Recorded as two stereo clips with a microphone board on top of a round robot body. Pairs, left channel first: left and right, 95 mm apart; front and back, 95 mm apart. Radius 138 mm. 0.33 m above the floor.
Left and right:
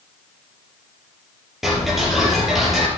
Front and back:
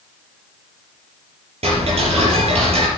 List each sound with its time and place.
1.6 s ticking: 175° right, 4.5 m